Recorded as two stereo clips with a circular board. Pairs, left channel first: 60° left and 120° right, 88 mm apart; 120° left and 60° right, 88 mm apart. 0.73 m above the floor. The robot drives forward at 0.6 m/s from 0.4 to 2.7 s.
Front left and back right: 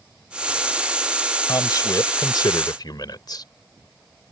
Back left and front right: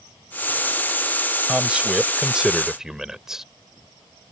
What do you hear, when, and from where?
1.5 s a man speaking: 20° left; by 3.5 s 25° left